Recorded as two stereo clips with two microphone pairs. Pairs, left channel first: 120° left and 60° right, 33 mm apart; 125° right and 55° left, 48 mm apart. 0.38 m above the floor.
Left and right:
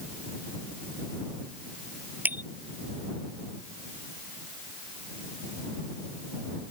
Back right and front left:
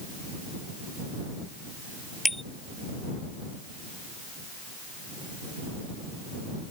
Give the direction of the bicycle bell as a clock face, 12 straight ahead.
1 o'clock.